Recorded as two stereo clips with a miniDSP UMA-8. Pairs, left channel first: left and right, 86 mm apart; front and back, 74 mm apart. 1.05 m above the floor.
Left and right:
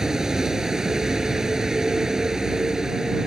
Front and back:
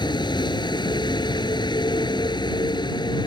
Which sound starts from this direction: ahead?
A vehicle, at 0.0 s.